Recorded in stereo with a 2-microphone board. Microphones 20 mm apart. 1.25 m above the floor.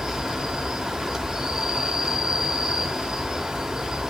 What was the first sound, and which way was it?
An insect, 35° right (ahead or behind).